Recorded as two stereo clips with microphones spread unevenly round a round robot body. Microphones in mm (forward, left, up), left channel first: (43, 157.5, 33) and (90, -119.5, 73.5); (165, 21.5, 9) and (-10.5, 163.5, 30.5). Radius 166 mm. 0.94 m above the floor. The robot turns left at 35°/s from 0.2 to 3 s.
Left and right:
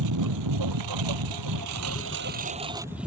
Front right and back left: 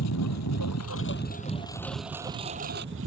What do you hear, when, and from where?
0.0 s a lawn mower: 65° right; by 3.1 s 165° right